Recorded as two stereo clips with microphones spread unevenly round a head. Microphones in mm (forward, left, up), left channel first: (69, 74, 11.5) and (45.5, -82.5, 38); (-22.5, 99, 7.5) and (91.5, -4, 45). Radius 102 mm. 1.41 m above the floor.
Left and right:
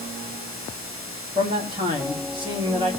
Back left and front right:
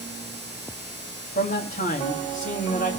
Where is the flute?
No flute in this recording.